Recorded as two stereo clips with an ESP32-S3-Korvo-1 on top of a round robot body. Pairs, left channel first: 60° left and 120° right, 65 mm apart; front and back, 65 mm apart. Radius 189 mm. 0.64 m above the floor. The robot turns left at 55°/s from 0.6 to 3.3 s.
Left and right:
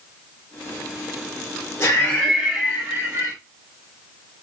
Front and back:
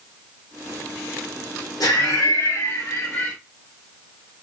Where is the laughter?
10° left, 2.5 m; by 3.4 s 75° right, 2.5 m.